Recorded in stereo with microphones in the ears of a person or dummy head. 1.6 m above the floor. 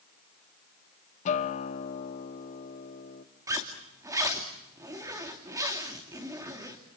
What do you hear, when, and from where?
1.2 s a guitar: 45° left (ahead or behind), 1.2 m
3.5 s a zipper: 15° right (ahead or behind), 2.5 m